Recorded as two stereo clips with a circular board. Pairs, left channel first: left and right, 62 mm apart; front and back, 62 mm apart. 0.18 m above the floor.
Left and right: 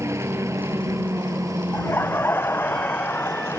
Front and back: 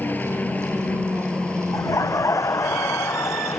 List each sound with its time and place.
0.0 s a helicopter: 60° right; by 3.6 s 95° right
1.7 s laughter: 35° left